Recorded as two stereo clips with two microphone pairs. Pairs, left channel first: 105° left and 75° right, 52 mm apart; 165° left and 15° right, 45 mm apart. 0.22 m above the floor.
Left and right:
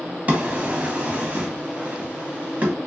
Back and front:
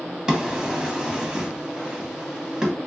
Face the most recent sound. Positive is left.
turn(degrees=-80)